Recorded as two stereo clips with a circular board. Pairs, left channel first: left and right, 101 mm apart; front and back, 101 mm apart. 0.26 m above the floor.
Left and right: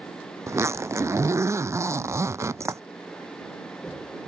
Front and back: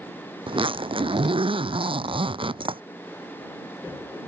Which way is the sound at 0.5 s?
150° right.